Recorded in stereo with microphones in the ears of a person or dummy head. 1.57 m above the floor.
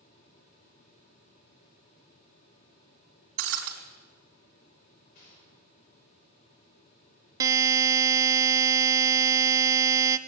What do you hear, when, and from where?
3.4 s breaking glass: 70° right (ahead or behind), 3.5 m
5.2 s a gunshot: 45° left (ahead or behind), 6 m
7.4 s a buzzer: 20° right (ahead or behind), 0.7 m